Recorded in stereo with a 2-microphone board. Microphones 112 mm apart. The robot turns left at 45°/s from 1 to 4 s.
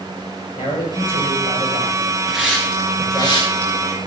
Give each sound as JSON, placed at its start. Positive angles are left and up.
{"t": 0.6, "sound": "a man speaking", "azimuth_deg": 135, "distance_m": 9.0}
{"t": 2.3, "sound": "a hiss", "side_deg": -5, "distance_m": 5.5}